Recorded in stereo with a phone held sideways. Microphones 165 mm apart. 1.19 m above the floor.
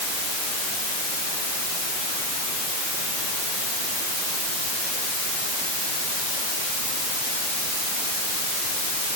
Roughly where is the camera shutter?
I don't hear a camera shutter.